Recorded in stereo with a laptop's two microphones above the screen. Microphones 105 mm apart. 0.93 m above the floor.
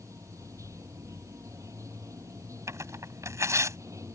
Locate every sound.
0.0 s running water: 30° right (ahead or behind)
2.7 s tearing paper: 25° right (ahead or behind)